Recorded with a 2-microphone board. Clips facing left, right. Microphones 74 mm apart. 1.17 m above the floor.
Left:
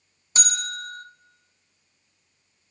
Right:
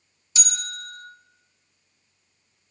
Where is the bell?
45° left (ahead or behind), 0.7 m.